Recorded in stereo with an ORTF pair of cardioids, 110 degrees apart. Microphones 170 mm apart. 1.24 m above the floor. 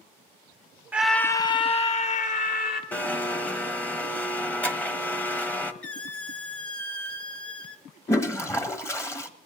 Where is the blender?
10° left, 0.9 m.